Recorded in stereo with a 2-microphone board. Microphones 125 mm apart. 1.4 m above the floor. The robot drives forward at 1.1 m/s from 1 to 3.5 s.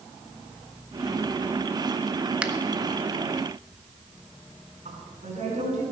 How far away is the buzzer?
I don't hear a buzzer.